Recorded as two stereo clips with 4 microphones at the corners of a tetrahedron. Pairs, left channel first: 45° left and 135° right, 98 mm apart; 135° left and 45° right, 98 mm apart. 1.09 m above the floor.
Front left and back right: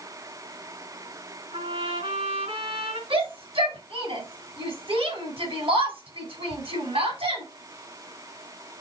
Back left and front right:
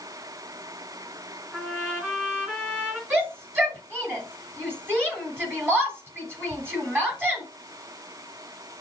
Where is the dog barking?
No dog barking in this recording.